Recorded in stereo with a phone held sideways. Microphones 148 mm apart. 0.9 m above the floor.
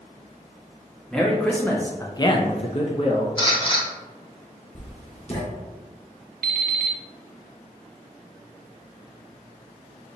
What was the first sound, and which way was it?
A man speaking, 5° left (ahead or behind).